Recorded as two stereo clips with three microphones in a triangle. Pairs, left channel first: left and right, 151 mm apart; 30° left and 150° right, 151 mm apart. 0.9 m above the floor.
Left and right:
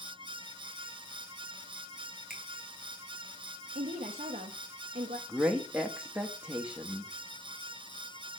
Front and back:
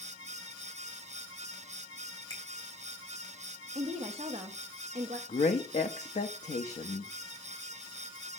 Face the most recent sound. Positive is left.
turn(degrees=-5)